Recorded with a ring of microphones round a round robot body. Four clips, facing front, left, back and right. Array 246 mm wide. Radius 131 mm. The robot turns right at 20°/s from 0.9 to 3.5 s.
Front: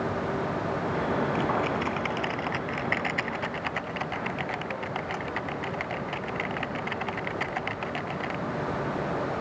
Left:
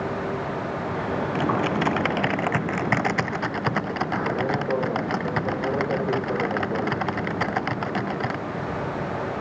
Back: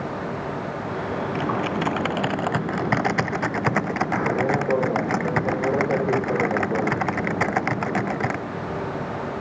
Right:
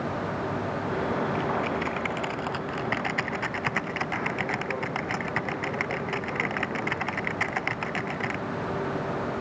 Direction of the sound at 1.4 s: 115° left.